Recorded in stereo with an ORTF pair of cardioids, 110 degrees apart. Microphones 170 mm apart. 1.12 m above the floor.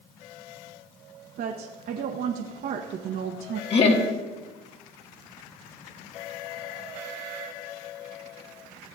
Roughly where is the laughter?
Ahead left.